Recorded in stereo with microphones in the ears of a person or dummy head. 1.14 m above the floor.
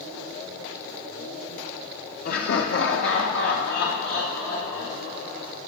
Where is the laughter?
40° left (ahead or behind), 0.6 m; by 5.5 s 45° left (ahead or behind), 2.5 m.